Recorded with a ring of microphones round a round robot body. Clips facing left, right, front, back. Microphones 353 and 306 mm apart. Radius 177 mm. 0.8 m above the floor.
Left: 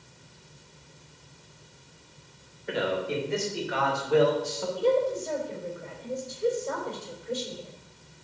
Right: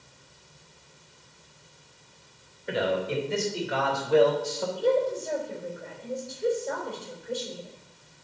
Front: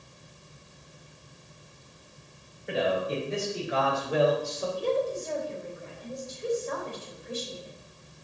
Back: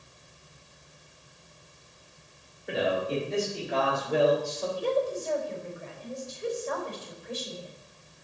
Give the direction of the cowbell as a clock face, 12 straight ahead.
I don't hear a cowbell.